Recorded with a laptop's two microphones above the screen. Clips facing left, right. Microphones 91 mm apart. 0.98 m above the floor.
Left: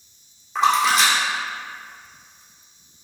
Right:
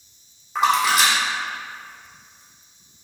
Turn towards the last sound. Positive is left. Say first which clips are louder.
# left 1 dB
turn(degrees=-5)  # may be behind; listen again after turning